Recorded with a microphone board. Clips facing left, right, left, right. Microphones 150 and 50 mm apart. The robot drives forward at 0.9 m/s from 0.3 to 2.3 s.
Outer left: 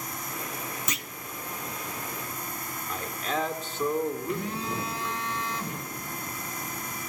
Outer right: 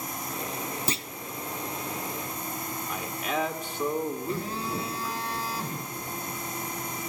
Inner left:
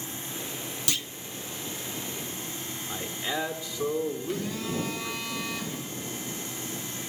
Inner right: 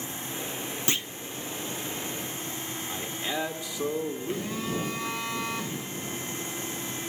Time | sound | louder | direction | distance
0.9 | a clunk | outer right 4 dB, inner right 3 dB | 30° right (ahead or behind) | 0.7 m
2.9 | a man speaking | outer left 1 dB, inner left 1 dB | 10° right (ahead or behind) | 1.4 m
4.3 | a phone buzzing | even, even | 30° right (ahead or behind) | 4 m